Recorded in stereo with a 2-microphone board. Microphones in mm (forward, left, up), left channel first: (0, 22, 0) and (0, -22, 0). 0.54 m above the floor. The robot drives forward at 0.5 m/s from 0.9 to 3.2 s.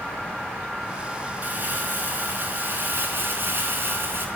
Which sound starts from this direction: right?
Crumpling, at 1.4 s.